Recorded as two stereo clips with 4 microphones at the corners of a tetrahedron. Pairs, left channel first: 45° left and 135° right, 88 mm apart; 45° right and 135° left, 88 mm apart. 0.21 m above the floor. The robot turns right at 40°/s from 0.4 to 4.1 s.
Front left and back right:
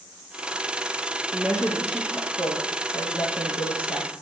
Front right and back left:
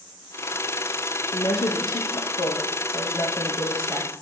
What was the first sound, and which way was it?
A woman speaking, 60° right.